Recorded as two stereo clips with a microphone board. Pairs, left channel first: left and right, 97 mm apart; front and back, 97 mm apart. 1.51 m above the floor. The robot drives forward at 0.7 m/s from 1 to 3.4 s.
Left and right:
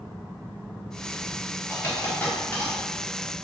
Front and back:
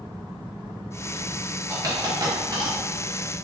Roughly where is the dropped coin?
Behind left.